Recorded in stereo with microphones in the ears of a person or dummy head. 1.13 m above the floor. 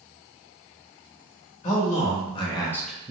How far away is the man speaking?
About 1.2 m.